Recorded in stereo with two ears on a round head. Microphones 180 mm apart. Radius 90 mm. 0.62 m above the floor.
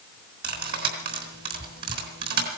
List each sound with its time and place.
0.4 s cutlery clinking: 55° right (ahead or behind), 4 m